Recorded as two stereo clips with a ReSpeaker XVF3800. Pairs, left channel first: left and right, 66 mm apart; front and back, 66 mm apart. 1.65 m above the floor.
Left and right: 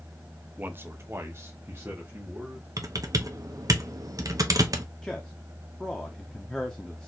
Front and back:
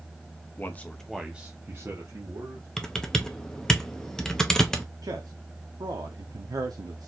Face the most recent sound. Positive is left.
turn(degrees=170)